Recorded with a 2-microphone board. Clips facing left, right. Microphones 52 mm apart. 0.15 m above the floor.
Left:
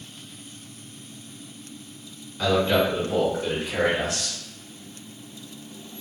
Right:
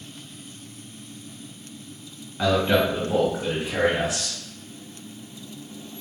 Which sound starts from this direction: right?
A man speaking, at 2.4 s.